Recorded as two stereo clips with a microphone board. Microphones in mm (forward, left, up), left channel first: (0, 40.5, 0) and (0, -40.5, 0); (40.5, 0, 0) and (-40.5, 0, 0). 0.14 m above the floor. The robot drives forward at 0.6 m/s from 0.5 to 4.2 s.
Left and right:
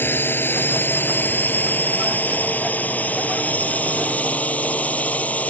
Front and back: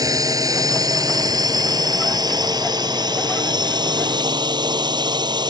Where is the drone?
150° left; by 5.5 s 160° left.